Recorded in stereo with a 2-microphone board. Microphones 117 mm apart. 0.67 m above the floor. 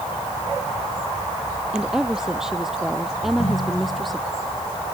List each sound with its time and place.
1.7 s a woman speaking: 5° right (ahead or behind); by 4.2 s centre (ahead or behind)
3.2 s a ringtone: 65° left (ahead or behind)